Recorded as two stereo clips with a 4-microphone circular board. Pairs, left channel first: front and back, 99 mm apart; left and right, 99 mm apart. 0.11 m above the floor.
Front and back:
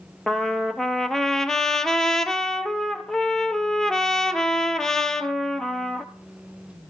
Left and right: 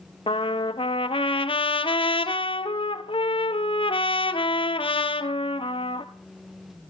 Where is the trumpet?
85° left, 1.2 m.